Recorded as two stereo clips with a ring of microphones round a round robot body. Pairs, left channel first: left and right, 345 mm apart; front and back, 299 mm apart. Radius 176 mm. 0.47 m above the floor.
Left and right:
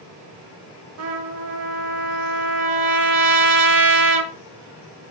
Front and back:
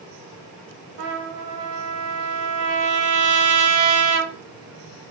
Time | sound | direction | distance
1.0 | a trumpet | 140° right | 0.8 m